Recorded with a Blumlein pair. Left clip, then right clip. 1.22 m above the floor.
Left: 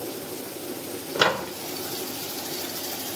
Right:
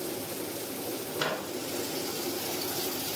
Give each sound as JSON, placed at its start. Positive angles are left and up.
{"t": 1.1, "sound": "a microwave", "azimuth_deg": 30, "distance_m": 0.8}